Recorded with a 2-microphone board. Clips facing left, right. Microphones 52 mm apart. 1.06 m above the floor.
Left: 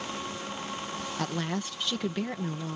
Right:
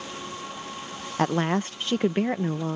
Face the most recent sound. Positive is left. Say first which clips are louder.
# right 10 dB
turn(degrees=-40)  # may be behind; listen again after turning